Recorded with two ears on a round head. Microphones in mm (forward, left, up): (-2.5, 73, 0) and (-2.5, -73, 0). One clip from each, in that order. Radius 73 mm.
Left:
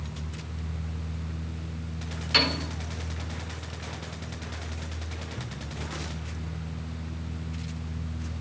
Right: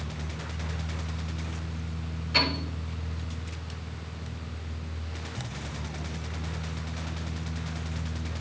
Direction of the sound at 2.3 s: 55° left (ahead or behind).